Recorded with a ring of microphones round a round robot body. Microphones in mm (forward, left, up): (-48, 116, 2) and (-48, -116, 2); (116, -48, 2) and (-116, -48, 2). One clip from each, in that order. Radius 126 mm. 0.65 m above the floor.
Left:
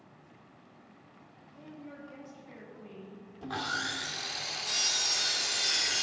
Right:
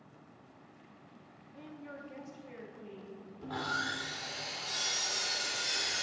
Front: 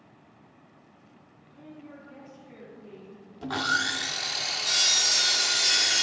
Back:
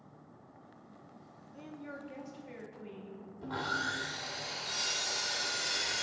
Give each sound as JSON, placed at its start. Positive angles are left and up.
{"t": 1.5, "sound": "a woman speaking", "azimuth_deg": -135, "distance_m": 1.2}
{"t": 3.4, "sound": "sawing", "azimuth_deg": 20, "distance_m": 0.5}